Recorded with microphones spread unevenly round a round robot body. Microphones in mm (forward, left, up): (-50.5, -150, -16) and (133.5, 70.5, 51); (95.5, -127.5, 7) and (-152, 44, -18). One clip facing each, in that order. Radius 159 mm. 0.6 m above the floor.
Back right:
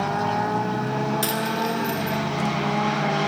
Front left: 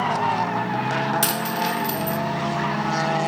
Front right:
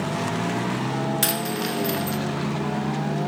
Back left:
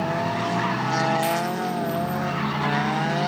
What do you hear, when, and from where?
1.2 s a dropped coin: straight ahead, 2 m